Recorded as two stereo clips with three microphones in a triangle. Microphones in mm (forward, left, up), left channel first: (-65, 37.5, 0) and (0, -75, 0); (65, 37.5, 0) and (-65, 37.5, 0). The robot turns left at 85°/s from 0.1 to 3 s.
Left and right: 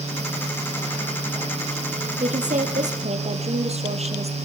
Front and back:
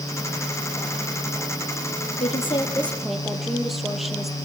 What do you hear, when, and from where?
2.2 s a woman speaking: 25° right, 4.5 m; by 4.3 s 90° right, 4.5 m